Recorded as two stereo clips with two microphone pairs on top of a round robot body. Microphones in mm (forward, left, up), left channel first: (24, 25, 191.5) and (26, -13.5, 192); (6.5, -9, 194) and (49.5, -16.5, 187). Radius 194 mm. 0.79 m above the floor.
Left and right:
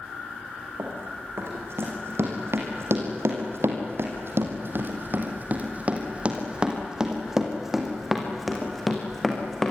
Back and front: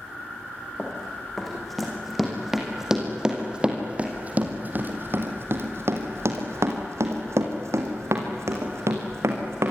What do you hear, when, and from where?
0.8 s running footsteps: 110° right, 4.5 m; by 9.7 s 10° left, 5 m